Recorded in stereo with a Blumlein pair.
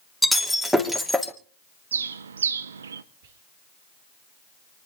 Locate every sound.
0.2 s breaking glass: straight ahead, 3 m
1.9 s a bird: 70° right, 1.0 m
3.2 s whispering: 55° right, 2.5 m